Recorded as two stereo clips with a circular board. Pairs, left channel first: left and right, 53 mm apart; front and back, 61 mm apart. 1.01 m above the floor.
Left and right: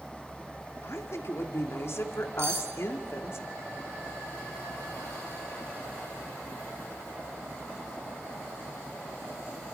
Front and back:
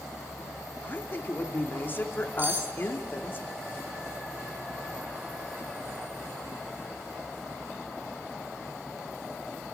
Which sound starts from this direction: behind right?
Cutlery clinking, at 2.4 s.